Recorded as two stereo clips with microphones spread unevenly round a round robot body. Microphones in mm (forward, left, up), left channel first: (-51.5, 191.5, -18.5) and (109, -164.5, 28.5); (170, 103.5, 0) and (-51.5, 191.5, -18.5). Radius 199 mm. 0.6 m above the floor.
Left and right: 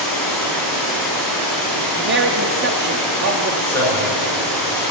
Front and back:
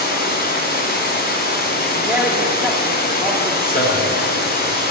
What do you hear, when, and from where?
0.0 s running water: 25° left, 4.5 m
2.0 s a man speaking: 120° right, 0.7 m
3.6 s a man speaking: 30° left, 7.5 m